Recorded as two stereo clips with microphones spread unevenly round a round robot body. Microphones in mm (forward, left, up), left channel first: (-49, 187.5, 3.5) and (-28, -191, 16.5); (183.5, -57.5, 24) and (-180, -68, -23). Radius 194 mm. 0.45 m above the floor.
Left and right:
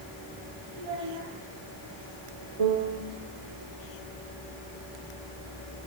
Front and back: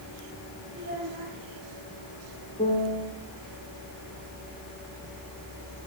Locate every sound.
0.7 s a child speaking: 115° right, 10 m
2.6 s a piano: 70° right, 4.5 m